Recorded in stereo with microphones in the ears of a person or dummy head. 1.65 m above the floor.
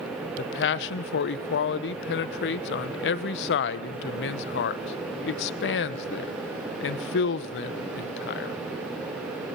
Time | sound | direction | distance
0.4 | a man speaking | 60° left (ahead or behind) | 1.0 m